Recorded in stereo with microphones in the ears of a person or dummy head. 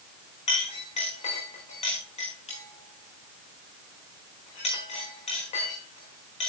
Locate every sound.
0.5 s a clink: 35° left (ahead or behind), 4 m